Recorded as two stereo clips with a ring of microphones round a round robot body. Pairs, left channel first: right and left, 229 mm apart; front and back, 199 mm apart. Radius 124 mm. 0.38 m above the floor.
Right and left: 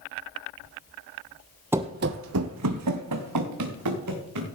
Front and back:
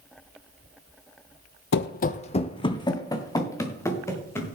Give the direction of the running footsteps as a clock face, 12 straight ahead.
12 o'clock.